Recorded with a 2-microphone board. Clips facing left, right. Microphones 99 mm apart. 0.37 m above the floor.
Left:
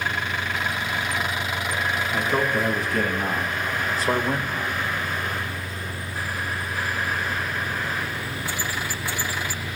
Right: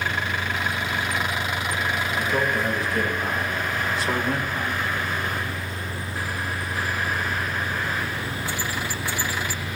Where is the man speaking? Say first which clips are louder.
Left 2 dB; 75° left (ahead or behind), 3.5 m; by 4.8 s 15° right (ahead or behind), 1.2 m.